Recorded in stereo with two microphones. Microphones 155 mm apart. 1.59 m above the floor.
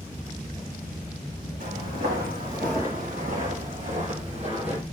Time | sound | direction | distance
1.6 | footsteps | 65° right (ahead or behind) | 4 m